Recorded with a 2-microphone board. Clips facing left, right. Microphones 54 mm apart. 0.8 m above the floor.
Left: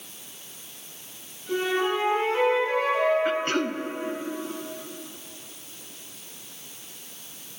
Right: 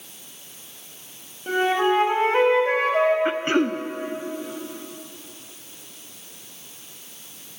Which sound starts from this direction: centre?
Throat clearing, at 3.2 s.